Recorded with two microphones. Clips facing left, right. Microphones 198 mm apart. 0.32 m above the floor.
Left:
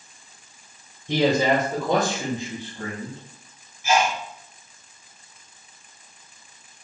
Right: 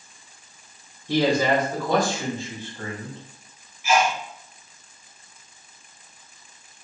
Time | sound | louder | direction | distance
1.1 | a man speaking | even | 20° left (ahead or behind) | 1.2 m
3.8 | a sneeze | even | 30° left (ahead or behind) | 1.4 m